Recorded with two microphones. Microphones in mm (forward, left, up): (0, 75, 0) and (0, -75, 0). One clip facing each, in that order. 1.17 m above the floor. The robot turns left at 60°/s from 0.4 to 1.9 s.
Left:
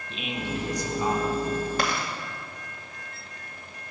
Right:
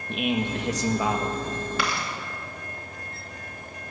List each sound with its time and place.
0.1 s a man speaking: 55° right, 1.1 m; by 1.7 s 130° right, 1.1 m
1.8 s chewing: 40° left (ahead or behind), 1.9 m; by 2.1 s 45° left (ahead or behind), 1.9 m